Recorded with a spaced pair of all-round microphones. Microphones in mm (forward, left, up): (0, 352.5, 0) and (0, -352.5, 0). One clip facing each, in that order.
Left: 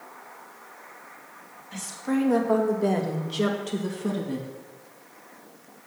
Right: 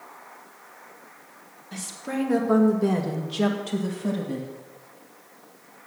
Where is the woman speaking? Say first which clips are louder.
Left 4 dB; 60° right (ahead or behind), 2.5 m; by 4.5 s centre (ahead or behind), 2.5 m.